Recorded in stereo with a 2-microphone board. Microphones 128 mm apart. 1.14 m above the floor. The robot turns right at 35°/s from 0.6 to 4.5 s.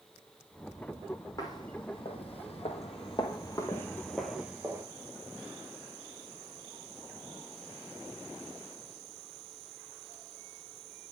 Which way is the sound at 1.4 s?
30° left (ahead or behind).